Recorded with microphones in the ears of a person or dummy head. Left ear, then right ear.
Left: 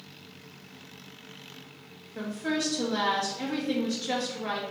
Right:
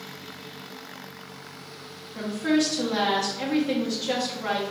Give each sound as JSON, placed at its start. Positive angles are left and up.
{"t": 2.1, "sound": "a woman speaking", "side_deg": -15, "distance_m": 1.1}